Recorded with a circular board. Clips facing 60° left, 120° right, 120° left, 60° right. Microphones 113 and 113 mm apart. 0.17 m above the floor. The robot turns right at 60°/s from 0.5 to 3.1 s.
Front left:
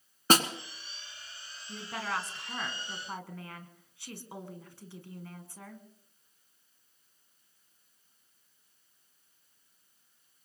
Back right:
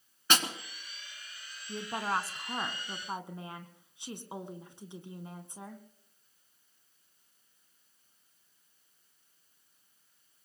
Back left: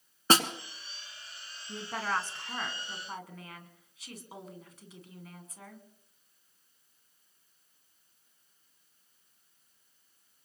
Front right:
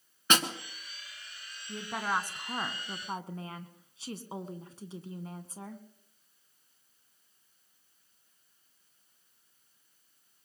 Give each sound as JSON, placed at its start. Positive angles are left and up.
{"t": 0.3, "sound": "a snare drum", "azimuth_deg": 85, "distance_m": 1.5}
{"t": 1.7, "sound": "a woman speaking", "azimuth_deg": -160, "distance_m": 1.2}